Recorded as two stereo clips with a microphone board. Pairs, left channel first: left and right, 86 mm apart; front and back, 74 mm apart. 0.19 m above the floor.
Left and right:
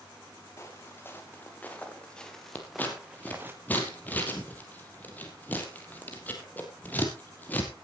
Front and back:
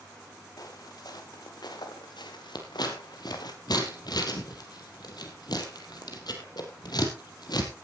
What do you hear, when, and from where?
0.6 s footsteps: 30° left, 4 m; by 3.5 s 25° right, 2.0 m
2.5 s scissors: 20° left, 3.5 m